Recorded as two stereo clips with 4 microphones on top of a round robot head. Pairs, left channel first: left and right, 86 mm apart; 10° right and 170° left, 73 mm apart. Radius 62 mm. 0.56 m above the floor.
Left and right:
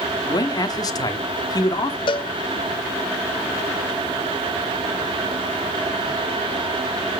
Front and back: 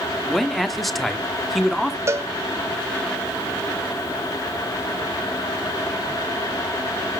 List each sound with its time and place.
0.3 s a man speaking: 80° left, 1.3 m
2.1 s a cowbell: 120° left, 0.7 m